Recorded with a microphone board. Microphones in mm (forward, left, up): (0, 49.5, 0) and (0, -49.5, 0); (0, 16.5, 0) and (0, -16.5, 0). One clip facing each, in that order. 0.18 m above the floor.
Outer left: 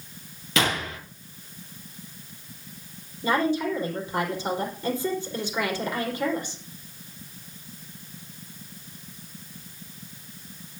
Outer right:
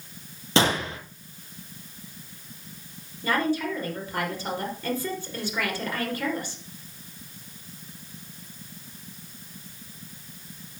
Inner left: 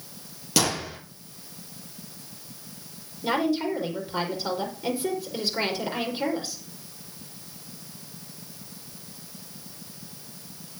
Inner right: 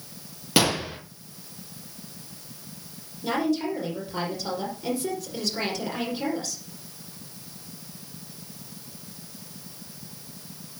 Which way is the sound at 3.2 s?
15° left (ahead or behind).